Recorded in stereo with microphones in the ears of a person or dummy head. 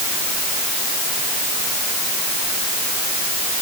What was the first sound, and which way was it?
Only background noise.